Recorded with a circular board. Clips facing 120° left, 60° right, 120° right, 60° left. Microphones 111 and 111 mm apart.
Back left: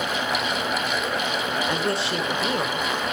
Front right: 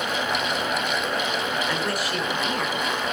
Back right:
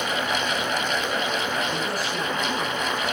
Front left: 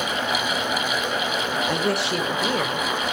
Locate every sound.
1.7 s a woman speaking: 50° left, 1.8 m; by 2.9 s 70° left, 2.5 m